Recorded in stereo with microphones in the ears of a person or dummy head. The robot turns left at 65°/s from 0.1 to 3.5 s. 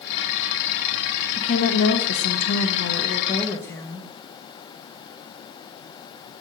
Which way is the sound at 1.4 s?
150° left.